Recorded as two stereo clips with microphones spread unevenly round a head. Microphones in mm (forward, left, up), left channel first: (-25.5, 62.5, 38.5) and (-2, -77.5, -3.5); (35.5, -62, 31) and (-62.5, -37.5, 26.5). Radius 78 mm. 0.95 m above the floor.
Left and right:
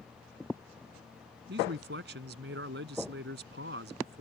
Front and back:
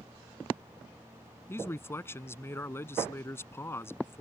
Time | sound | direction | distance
1.5 | a man speaking | 80° right | ?